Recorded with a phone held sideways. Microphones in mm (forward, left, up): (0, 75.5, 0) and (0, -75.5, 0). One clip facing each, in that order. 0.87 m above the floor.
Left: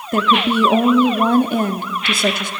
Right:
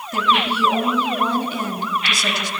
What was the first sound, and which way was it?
A woman speaking, 50° left (ahead or behind).